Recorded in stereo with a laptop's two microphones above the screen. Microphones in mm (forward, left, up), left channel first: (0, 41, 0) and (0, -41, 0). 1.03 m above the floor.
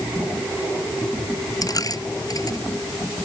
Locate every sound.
1.6 s a dropped coin: 45° left (ahead or behind)